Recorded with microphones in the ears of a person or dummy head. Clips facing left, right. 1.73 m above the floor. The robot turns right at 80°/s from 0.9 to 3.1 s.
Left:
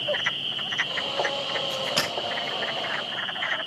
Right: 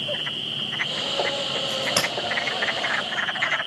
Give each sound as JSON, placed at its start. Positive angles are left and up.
{"t": 1.7, "sound": "a crack", "side_deg": -10, "distance_m": 6.5}